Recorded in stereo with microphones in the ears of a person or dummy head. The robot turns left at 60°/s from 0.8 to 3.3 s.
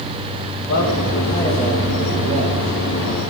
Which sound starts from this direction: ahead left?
A man speaking, at 0.6 s.